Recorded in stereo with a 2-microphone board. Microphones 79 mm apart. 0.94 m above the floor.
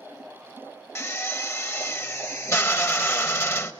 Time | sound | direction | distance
0.9 | a drill | 35° left (ahead or behind) | 1.1 m